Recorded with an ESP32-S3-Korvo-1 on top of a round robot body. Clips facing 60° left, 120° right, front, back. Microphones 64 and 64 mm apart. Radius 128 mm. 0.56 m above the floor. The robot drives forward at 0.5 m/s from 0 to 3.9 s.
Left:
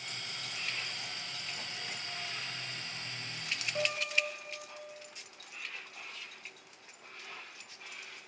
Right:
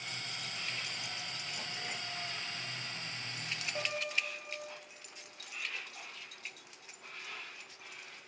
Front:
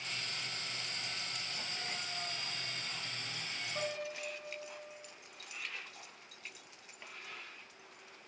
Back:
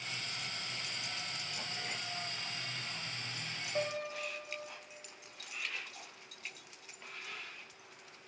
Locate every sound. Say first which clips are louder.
3.8 s a piano: left 4 dB, back 4 dB; 150° left, 0.7 m